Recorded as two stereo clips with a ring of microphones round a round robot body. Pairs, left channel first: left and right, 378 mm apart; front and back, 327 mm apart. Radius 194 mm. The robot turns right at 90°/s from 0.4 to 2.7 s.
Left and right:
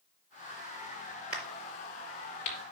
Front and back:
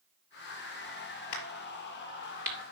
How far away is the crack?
About 4.5 m.